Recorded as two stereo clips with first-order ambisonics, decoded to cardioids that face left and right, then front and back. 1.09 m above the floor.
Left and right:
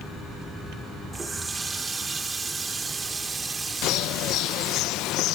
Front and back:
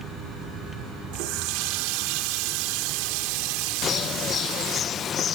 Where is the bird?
60° left, 0.5 m.